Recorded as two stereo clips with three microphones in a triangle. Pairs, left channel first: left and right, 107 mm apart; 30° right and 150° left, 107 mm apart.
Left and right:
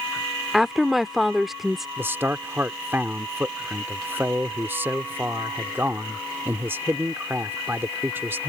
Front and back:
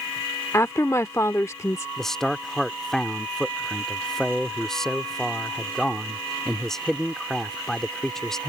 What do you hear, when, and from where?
0.5 s a woman speaking: 5° right
2.0 s a man speaking: 110° right